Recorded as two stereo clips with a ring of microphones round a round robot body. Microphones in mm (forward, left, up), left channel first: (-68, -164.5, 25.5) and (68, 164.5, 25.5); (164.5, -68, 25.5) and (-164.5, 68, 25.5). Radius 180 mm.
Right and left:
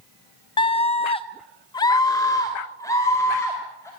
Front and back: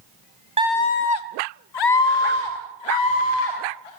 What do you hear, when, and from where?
0.6 s a scream: 165° right, 0.6 m; by 3.9 s 30° right, 3.5 m